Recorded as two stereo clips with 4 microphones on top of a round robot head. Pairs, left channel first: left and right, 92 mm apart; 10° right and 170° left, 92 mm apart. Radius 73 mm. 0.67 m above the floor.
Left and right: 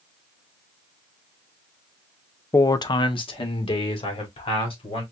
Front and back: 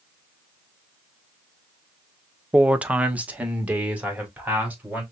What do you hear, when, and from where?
2.5 s a man speaking: 100° left, 0.5 m; by 5.0 s 95° left, 3 m